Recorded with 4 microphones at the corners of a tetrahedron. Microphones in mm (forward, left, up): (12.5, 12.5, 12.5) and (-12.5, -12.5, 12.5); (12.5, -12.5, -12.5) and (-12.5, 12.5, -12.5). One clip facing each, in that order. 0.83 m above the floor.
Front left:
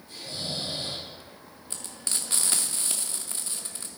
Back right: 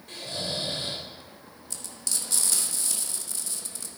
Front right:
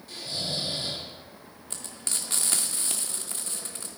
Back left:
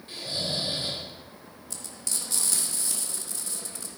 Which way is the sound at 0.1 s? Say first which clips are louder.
Back right 2 dB, back left 1 dB; 165° right.